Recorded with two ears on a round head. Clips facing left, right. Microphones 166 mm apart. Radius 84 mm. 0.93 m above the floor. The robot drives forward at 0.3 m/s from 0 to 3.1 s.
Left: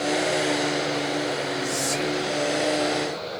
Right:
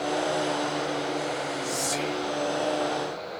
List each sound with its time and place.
1.6 s whispering: 5° right (ahead or behind), 2 m